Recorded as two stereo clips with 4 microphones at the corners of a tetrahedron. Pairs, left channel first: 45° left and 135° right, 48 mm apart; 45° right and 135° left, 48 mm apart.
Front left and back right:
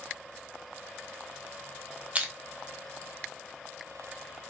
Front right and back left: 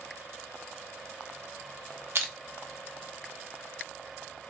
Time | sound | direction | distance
2.1 | crushing | 165° left | 0.9 m